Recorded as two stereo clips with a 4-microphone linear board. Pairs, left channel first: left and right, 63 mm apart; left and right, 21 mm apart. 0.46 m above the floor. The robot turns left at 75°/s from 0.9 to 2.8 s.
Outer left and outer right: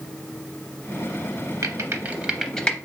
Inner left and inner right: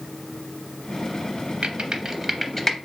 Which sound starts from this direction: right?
Typing on a keyboard, at 1.6 s.